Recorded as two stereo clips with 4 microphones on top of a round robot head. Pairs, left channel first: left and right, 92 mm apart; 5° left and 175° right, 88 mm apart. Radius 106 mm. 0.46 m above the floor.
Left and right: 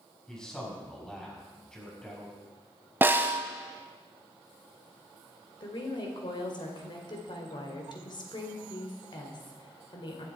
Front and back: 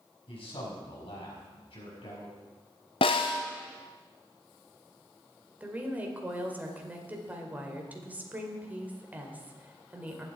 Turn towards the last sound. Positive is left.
turn(degrees=120)